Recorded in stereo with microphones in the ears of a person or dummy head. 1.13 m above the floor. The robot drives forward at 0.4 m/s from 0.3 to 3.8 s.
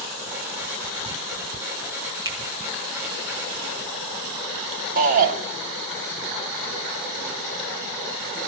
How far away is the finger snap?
About 1.0 m.